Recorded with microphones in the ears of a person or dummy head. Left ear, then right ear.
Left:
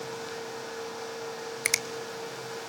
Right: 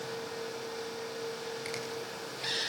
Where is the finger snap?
35° left (ahead or behind), 0.5 m.